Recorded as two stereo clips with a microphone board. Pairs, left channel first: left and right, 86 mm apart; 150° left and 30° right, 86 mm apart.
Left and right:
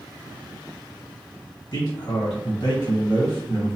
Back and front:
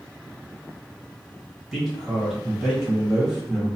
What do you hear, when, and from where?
1.7 s a man speaking: 55° left, 1.7 m